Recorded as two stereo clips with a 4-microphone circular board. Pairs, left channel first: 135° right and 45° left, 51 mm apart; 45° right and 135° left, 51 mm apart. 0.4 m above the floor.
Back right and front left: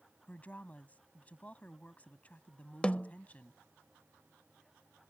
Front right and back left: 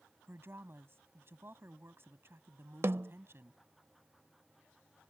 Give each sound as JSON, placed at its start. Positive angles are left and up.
{"t": 0.3, "sound": "a woman speaking", "azimuth_deg": 165}
{"t": 2.8, "sound": "a snare drum", "azimuth_deg": 155}